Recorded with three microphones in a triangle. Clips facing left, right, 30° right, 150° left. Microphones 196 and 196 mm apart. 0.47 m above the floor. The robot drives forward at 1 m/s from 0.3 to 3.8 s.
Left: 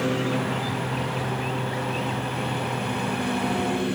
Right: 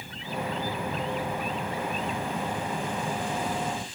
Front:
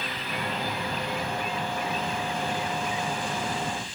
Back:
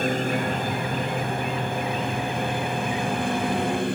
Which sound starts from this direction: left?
A lawn mower, at 0.0 s.